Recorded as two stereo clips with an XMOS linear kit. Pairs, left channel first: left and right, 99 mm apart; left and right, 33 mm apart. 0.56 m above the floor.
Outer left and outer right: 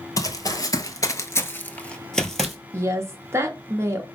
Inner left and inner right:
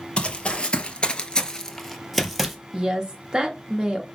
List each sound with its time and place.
0.2 s running footsteps: 35° left (ahead or behind), 0.9 m; by 2.6 s centre (ahead or behind), 1.0 m
2.7 s a woman speaking: 25° right (ahead or behind), 0.8 m